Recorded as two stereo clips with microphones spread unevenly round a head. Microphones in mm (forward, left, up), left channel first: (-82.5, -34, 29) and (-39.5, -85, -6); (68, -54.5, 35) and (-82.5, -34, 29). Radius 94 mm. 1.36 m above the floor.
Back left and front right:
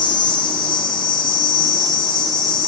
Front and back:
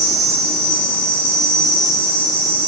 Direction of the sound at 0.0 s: 140° left.